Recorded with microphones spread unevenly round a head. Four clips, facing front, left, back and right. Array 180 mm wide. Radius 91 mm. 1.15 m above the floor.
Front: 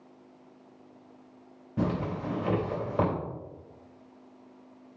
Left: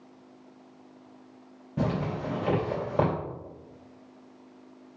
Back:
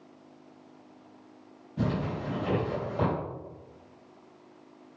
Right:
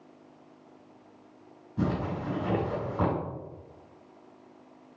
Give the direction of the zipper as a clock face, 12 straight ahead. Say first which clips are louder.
Left 1 dB, front 1 dB; 10 o'clock.